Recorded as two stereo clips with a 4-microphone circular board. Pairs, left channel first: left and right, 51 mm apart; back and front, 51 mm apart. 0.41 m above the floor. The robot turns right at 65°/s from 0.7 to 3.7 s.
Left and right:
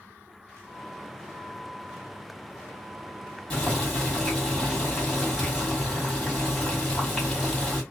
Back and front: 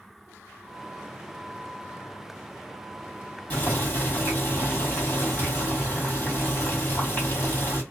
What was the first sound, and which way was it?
Boiling, 140° left.